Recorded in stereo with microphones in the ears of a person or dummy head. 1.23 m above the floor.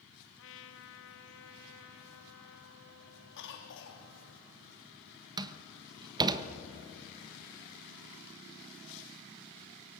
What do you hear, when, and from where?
0.4 s a trumpet: 65° left (ahead or behind), 1.2 m
3.4 s a cough: 60° left (ahead or behind), 2.5 m
5.4 s a door slam: 25° right (ahead or behind), 1.1 m